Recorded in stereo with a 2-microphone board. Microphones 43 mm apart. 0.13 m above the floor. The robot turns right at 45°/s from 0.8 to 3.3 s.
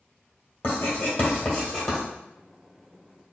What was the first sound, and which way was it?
Writing, 60° left (ahead or behind).